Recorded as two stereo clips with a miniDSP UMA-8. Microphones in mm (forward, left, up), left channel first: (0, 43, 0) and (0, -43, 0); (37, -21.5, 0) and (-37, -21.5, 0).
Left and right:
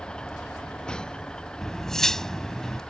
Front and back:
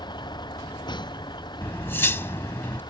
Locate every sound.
0.0 s a vehicle: 10° left
1.6 s cutlery clinking: 15° left